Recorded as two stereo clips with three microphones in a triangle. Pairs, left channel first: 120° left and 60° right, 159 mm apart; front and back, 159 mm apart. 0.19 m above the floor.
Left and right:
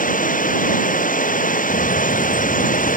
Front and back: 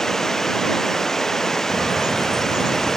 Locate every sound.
0.0 s running water: 90° left
1.7 s a bird: 120° left